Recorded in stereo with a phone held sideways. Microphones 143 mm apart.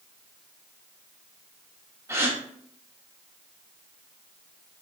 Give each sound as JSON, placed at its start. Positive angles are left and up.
{"t": 2.1, "sound": "a gasp", "side_deg": -20, "distance_m": 1.7}